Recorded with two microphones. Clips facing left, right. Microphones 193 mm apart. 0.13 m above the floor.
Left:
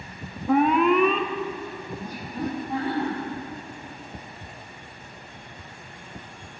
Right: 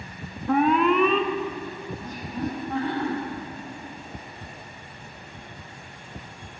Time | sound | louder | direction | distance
0.5 | an alarm | left 1 dB | 5° left (ahead or behind) | 1.0 m
2.0 | laughter | even | 10° left (ahead or behind) | 5.5 m